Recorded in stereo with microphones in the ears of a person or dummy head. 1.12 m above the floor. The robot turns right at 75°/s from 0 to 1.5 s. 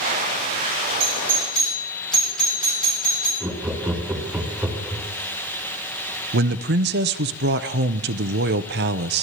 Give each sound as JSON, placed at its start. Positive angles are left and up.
{"t": 1.0, "sound": "a doorbell", "side_deg": -35, "distance_m": 7.0}
{"t": 3.4, "sound": "laughter", "side_deg": -5, "distance_m": 1.8}
{"t": 6.3, "sound": "a man speaking", "side_deg": -55, "distance_m": 0.7}